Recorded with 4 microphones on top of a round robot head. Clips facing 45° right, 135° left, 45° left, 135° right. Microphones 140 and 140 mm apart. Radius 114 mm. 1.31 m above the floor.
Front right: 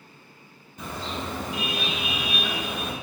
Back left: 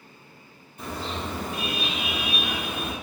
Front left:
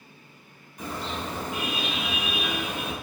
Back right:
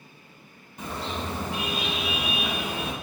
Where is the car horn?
70° right, 7 m; by 2.9 s 75° right, 4.5 m.